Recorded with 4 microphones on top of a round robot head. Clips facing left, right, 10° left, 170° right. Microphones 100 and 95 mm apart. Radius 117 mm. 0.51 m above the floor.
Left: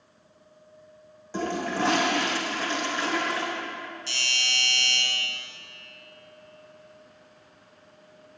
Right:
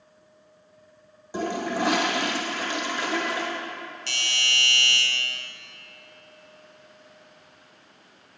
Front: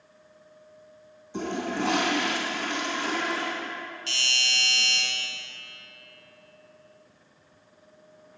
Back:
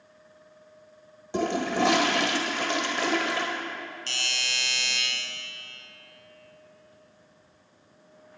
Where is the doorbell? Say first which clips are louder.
Right 2 dB, front 2 dB; 115° right, 4 m.